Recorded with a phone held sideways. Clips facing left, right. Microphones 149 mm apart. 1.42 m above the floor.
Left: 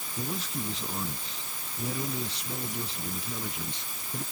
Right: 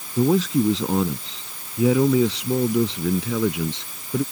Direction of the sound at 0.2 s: 80° right.